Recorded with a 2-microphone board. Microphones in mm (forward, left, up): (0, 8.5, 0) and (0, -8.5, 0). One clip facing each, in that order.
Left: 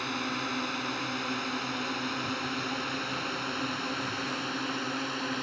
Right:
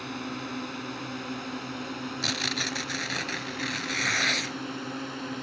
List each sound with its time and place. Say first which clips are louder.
0.0 s a drone: left 3 dB; 25° left (ahead or behind)
2.2 s tearing paper: right 4 dB; 75° right (ahead or behind)